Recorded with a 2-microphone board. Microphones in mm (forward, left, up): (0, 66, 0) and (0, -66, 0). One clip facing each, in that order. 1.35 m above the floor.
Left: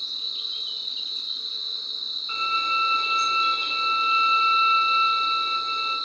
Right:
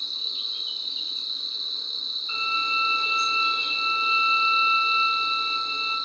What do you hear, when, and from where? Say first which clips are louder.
0.0 s an insect: right 1 dB; 25° right (ahead or behind), 0.8 m
2.3 s a violin: left 3 dB; 45° left (ahead or behind), 0.9 m